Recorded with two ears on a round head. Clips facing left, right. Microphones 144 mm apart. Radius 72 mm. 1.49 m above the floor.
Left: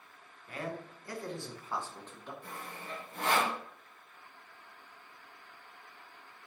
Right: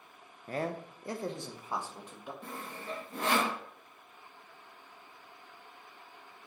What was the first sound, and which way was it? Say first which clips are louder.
A man speaking: right 5 dB; 35° right (ahead or behind).